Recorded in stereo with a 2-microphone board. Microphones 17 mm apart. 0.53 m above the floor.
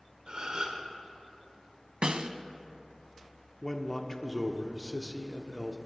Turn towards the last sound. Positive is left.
turn(degrees=20)  # may be behind; listen again after turning